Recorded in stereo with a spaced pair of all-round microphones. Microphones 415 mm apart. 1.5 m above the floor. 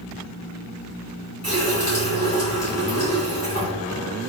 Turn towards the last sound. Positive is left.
turn(degrees=-55)  # may be behind; listen again after turning